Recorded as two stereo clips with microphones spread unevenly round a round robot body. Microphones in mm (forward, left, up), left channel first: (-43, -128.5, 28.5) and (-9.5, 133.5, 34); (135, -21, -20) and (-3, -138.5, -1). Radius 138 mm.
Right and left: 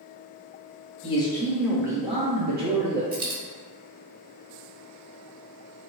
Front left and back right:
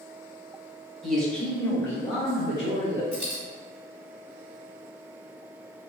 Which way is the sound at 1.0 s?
40° right.